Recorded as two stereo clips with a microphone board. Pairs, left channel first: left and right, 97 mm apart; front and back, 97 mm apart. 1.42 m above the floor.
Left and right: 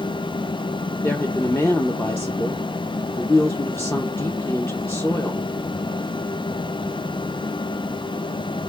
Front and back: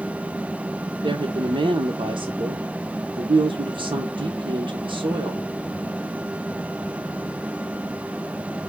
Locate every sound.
1.0 s a woman speaking: 155° left, 0.8 m